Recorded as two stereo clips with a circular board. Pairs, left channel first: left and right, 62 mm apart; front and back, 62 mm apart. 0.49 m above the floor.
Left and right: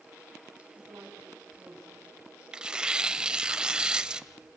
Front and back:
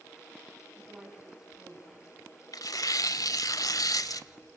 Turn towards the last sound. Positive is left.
turn(degrees=-10)